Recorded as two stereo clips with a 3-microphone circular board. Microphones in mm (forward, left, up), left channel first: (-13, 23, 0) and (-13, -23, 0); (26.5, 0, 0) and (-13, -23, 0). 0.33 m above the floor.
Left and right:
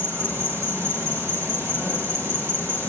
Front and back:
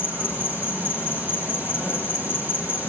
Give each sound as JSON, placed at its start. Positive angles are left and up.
{"t": 0.0, "sound": "an insect", "azimuth_deg": -105, "distance_m": 9.5}